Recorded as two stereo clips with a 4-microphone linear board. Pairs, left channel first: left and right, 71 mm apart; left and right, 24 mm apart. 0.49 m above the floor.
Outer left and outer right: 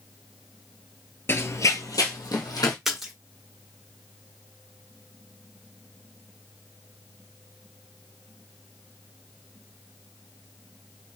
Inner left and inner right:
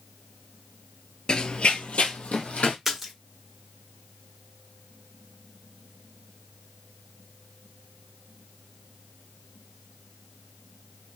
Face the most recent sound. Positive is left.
turn(degrees=-5)  # may be behind; listen again after turning